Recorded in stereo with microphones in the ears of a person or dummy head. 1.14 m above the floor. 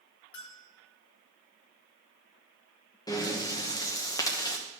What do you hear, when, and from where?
0.3 s a bell: 55° left (ahead or behind), 1.7 m
3.1 s breathing: 25° left (ahead or behind), 1.0 m